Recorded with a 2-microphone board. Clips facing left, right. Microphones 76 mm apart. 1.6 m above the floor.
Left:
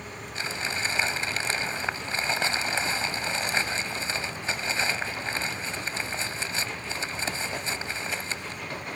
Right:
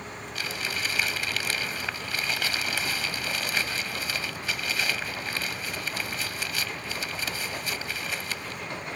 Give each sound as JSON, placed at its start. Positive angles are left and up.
{"t": 0.3, "sound": "crumpling", "side_deg": 30}